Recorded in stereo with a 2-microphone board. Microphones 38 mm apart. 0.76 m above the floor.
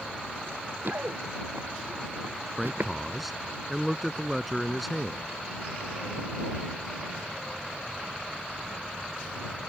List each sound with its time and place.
0.5 s running footsteps: 70° right (ahead or behind); by 2.9 s 65° right (ahead or behind)
2.6 s a man speaking: centre (ahead or behind)